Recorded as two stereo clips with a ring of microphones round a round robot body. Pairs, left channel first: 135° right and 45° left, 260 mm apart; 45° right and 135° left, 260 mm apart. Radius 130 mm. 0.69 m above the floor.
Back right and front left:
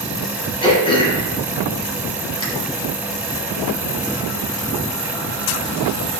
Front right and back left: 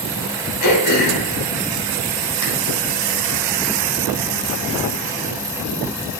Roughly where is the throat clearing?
Ahead right.